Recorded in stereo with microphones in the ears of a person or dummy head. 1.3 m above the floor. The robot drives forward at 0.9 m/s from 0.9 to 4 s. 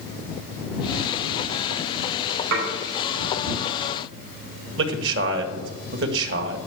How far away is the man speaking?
About 1.7 m.